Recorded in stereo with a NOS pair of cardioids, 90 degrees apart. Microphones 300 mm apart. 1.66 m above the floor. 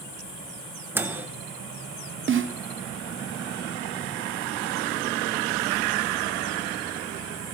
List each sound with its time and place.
0.9 s a microwave: 5° right, 1.3 m
2.3 s a snare drum: 40° right, 1.0 m